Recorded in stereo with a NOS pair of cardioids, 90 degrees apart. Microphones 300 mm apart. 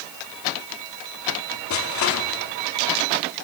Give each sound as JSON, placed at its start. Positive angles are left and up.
{"t": 1.7, "sound": "crushing", "azimuth_deg": 70, "distance_m": 4.5}